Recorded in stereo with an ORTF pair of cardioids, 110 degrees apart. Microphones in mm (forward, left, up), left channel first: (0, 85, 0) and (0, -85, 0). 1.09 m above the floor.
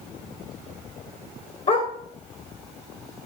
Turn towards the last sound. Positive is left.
turn(degrees=35)